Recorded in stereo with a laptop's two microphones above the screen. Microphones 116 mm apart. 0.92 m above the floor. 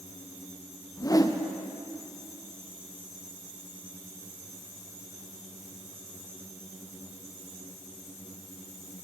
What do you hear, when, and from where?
1.0 s a whoosh: 30° left (ahead or behind), 0.6 m